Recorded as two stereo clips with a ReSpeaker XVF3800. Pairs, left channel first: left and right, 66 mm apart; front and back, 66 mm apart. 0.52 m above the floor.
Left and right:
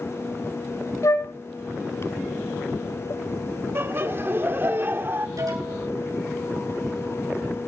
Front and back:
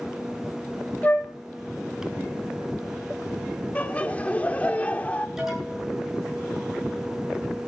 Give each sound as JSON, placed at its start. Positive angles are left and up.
{"t": 1.0, "sound": "a flute", "azimuth_deg": 60, "distance_m": 1.6}
{"t": 3.8, "sound": "laughter", "azimuth_deg": -60, "distance_m": 1.5}
{"t": 5.4, "sound": "an alarm", "azimuth_deg": -95, "distance_m": 7.5}